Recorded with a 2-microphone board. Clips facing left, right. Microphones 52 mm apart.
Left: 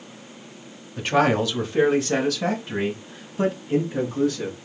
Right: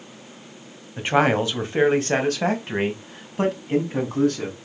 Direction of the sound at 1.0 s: 20° right (ahead or behind).